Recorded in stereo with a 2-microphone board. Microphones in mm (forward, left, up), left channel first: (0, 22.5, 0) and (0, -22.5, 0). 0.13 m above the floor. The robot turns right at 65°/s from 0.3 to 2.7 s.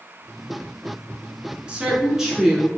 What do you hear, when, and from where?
1.7 s a woman speaking: 25° right (ahead or behind), 1.1 m; by 2.7 s centre (ahead or behind), 1.1 m